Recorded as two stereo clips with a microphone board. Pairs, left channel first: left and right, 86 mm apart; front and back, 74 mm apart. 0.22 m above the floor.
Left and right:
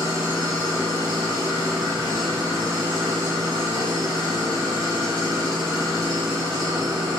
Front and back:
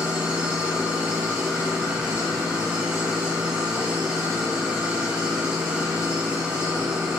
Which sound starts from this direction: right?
An engine running, at 0.0 s.